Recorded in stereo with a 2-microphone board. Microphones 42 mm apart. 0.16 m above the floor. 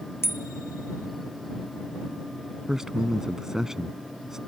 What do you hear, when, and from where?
0.2 s a bicycle bell: 70° left (ahead or behind)
2.7 s a man speaking: 15° right (ahead or behind)